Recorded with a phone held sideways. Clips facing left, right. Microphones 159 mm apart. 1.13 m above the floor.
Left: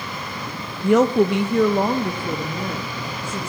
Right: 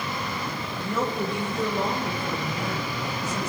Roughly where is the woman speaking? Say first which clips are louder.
Left 13 dB; left.